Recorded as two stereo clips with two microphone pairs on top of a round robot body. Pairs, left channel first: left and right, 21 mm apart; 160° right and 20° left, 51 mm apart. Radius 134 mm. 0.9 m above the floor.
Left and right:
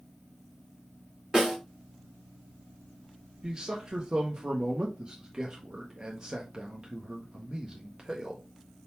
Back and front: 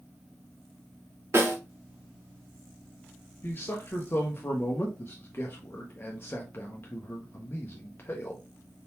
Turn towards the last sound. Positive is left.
turn(degrees=-125)